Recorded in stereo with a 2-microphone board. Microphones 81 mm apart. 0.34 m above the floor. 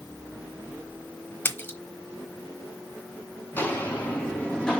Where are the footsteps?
25° left (ahead or behind), 3 m; by 4.8 s 5° left (ahead or behind), 3 m.